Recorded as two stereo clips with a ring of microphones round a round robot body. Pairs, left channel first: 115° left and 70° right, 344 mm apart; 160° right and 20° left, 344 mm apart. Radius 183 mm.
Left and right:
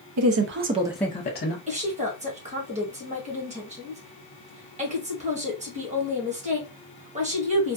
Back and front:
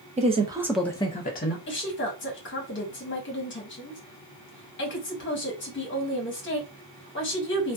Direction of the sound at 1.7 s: 125° right.